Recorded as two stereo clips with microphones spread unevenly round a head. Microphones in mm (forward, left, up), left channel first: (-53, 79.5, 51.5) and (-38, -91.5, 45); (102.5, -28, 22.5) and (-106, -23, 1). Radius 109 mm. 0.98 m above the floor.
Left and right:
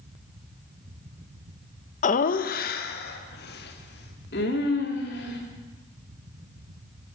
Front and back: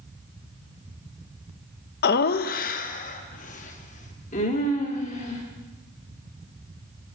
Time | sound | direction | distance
2.0 | laughter | 45° left | 0.5 m